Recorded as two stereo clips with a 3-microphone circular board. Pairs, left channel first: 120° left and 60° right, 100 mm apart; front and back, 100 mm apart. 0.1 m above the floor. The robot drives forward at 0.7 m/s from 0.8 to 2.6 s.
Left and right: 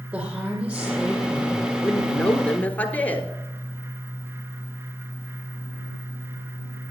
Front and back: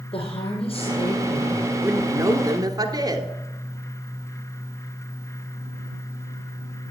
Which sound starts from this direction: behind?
A woman speaking, at 1.8 s.